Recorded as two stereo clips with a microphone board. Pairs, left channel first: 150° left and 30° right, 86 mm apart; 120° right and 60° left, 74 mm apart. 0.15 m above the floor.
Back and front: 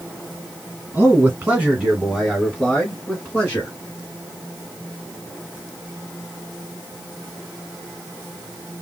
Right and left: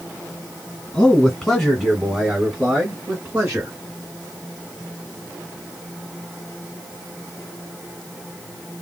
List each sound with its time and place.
0.9 s a man speaking: 55° right, 1.8 m; by 3.7 s 105° left, 1.9 m